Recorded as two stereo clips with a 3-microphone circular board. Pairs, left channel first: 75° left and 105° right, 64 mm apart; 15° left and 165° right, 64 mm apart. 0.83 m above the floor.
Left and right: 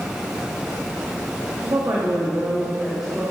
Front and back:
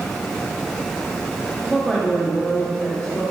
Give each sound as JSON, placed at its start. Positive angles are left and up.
{"t": 1.6, "sound": "a woman speaking", "azimuth_deg": -80, "distance_m": 1.0}